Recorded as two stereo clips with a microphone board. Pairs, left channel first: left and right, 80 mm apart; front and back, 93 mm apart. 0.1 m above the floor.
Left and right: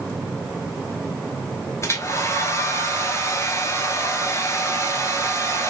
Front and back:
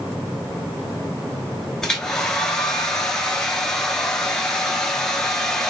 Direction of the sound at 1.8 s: 80° left.